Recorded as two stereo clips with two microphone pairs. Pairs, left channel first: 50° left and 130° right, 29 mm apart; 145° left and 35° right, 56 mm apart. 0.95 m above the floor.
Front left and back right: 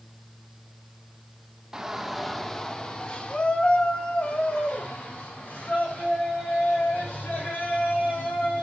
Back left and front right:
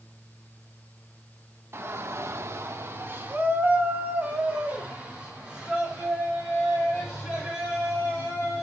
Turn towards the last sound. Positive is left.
turn(degrees=35)